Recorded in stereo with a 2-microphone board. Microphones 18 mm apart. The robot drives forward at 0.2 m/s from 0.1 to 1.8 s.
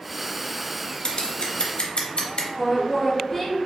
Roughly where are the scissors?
Left.